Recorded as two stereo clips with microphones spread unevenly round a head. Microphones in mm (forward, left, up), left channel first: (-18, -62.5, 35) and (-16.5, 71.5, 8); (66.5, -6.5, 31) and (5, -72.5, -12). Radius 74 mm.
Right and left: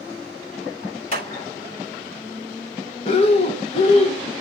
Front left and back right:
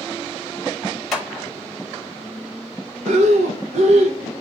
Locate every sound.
1.1 s a clap: 40° right, 3.5 m
3.0 s breathing: 130° right, 0.9 m